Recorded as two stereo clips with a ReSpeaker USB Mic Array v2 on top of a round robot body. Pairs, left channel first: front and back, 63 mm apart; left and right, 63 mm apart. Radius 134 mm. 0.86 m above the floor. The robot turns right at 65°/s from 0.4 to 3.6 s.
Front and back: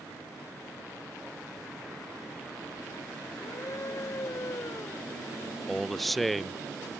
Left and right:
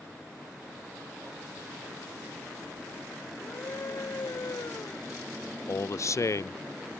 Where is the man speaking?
90° left.